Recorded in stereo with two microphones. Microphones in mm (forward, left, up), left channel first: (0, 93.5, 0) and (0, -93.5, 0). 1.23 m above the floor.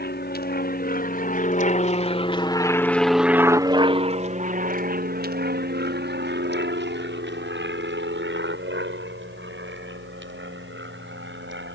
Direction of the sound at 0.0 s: 55° left (ahead or behind).